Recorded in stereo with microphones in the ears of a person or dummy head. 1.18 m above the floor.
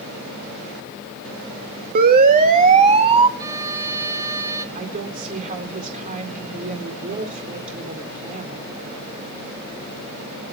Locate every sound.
1.9 s a siren: 50° right (ahead or behind), 2 m; by 3.3 s 30° right (ahead or behind), 1.8 m
3.4 s a violin: 15° right (ahead or behind), 1.4 m
4.8 s a woman speaking: 45° right (ahead or behind), 4.5 m